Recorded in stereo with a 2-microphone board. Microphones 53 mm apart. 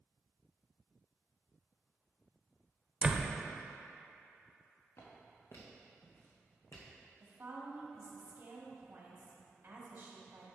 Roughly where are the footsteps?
Left.